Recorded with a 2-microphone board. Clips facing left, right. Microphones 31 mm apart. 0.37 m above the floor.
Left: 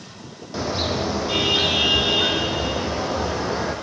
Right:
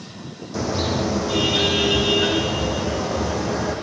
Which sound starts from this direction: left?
A car horn, at 0.5 s.